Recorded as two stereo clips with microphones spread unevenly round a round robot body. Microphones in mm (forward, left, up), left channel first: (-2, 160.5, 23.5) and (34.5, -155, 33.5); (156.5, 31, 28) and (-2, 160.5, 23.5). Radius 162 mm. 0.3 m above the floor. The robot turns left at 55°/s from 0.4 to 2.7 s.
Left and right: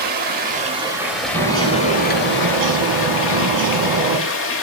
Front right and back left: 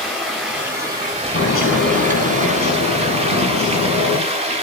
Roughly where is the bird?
Ahead.